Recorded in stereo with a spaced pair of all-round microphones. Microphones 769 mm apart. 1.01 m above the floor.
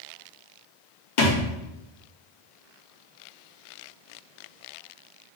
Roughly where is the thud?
Left.